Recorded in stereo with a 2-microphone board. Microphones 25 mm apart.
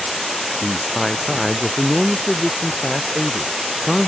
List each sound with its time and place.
0.6 s a man speaking: centre (ahead or behind)